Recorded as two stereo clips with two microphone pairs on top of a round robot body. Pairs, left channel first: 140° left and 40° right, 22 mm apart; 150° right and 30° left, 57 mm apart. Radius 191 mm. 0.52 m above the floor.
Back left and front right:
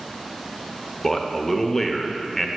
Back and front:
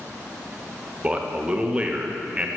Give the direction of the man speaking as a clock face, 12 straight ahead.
9 o'clock.